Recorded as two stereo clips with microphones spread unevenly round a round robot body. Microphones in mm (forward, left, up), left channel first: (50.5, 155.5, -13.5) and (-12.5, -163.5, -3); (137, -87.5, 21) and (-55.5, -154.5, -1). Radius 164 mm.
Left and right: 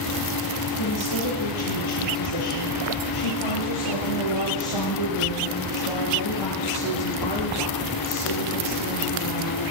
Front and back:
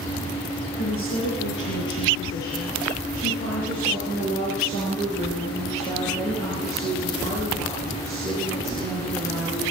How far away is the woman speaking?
About 7.5 m.